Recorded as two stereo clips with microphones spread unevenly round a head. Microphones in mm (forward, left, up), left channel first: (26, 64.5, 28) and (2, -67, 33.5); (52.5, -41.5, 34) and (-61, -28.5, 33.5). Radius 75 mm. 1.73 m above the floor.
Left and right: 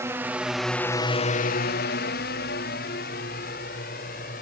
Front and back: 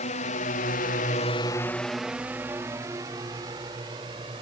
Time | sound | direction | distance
0.0 | a drone | 30° right | ?